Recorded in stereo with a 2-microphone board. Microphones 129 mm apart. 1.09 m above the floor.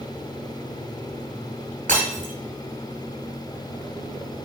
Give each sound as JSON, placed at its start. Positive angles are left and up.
{"t": 1.9, "sound": "breaking glass", "side_deg": -80, "distance_m": 4.0}